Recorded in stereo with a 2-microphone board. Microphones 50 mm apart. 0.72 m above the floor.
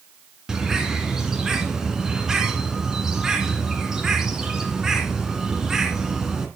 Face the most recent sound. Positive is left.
turn(degrees=-10)  # may be behind; listen again after turning